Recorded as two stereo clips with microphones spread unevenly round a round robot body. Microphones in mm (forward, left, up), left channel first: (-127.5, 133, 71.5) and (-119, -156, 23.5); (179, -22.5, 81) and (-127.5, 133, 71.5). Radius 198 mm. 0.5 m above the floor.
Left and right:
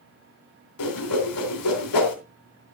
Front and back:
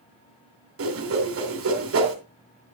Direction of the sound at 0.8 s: 105° left.